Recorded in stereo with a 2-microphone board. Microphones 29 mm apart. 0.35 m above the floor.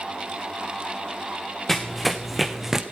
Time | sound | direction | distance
1.7 | running footsteps | 15° left (ahead or behind) | 1.7 m